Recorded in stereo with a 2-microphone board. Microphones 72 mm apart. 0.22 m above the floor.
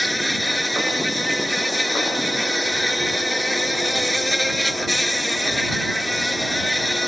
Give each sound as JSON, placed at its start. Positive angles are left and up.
{"t": 0.0, "sound": "an insect", "side_deg": 0}